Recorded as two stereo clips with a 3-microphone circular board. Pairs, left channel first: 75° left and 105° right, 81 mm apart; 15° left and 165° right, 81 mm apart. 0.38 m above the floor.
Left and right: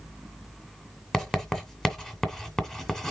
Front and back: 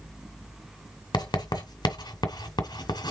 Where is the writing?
5° right, 2 m.